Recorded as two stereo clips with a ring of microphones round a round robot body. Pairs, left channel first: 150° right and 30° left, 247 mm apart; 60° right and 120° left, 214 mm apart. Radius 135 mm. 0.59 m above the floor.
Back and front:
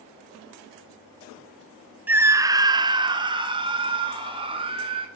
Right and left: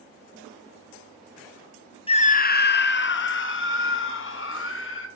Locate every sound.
2.1 s a scream: 40° right, 0.8 m